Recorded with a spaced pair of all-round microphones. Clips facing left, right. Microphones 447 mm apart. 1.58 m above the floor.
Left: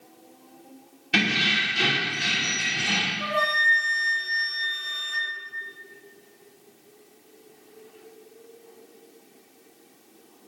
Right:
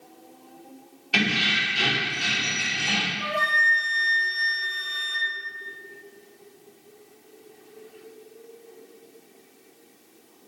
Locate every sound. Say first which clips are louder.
1.1 s keys jangling: even; 35° left (ahead or behind), 0.8 m
3.2 s a flute: left 2 dB; 40° left (ahead or behind), 0.6 m